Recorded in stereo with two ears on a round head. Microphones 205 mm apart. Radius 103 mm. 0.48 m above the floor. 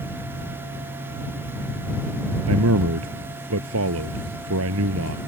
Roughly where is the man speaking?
Right.